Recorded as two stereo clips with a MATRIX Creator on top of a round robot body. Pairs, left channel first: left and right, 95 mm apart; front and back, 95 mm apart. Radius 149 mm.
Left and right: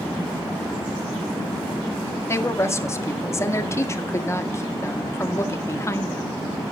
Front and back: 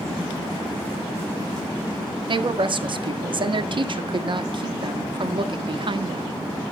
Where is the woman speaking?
150° left, 1.7 m.